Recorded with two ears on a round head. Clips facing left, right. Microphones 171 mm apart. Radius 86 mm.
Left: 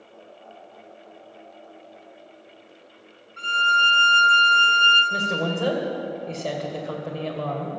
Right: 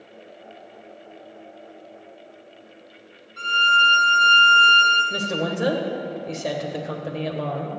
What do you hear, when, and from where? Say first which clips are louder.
3.4 s a violin: right 2 dB; 35° right (ahead or behind), 4.5 m
5.1 s a woman speaking: right 2 dB; 15° right (ahead or behind), 2 m